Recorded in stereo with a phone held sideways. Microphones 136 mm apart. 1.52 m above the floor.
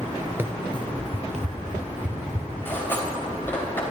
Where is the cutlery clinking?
15° left (ahead or behind), 4 m.